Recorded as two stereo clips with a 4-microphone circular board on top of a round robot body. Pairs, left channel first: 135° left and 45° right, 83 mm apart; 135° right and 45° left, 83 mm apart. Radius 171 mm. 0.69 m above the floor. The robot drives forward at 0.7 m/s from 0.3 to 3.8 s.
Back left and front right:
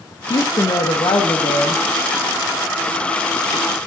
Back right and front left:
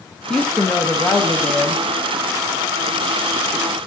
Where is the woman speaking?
145° left, 1.0 m; by 1.8 s 165° left, 1.9 m.